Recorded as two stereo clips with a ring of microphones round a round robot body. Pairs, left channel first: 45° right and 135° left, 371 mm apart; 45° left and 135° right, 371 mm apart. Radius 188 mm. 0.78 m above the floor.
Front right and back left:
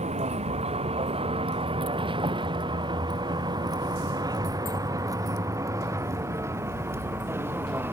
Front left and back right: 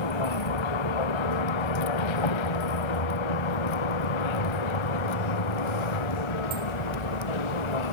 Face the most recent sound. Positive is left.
turn(degrees=50)